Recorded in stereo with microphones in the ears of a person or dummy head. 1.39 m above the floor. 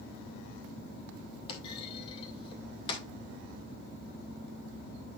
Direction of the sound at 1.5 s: 30° left (ahead or behind).